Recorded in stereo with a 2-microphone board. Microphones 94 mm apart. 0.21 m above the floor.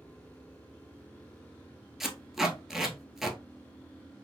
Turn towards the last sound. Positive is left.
turn(degrees=-5)  # may be behind; listen again after turning